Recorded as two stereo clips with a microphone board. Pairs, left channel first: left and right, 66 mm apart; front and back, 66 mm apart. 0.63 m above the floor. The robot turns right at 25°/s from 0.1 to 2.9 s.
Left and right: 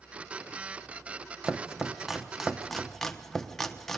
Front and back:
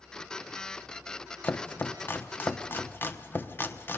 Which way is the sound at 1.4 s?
25° right.